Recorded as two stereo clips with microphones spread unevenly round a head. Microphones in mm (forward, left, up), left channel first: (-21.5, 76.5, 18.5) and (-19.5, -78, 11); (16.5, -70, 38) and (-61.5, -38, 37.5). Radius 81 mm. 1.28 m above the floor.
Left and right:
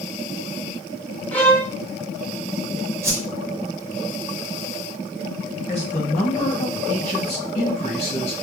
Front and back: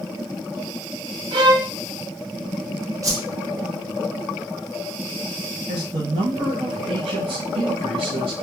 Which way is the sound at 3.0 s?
160° right.